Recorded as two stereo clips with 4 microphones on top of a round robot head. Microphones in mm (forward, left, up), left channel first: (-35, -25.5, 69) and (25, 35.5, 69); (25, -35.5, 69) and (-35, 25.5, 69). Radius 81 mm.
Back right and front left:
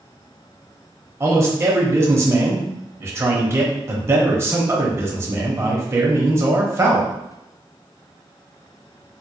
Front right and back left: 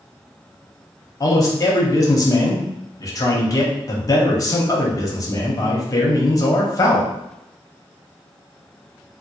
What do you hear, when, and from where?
1.2 s a man speaking: 5° right, 1.1 m